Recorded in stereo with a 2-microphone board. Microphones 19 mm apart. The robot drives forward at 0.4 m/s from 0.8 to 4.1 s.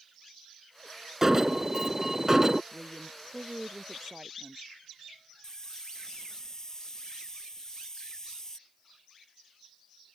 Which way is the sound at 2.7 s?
20° right (ahead or behind).